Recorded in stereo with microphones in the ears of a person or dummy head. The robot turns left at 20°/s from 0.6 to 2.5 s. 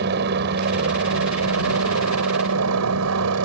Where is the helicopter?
55° right; by 3.5 s 95° right.